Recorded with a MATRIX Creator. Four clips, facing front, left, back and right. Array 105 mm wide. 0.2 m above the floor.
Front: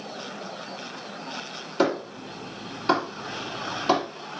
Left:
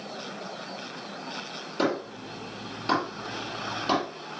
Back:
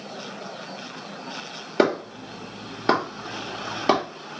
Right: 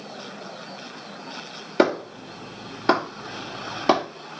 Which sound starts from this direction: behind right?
A clap, at 1.8 s.